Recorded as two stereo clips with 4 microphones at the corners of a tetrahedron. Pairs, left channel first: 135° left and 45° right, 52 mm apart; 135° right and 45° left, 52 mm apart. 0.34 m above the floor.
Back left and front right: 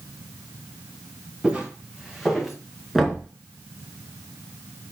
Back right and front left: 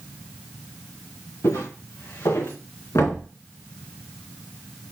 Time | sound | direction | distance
1.4 | footsteps | 115° right | 3 m
3.0 | knocking | 130° right | 2.5 m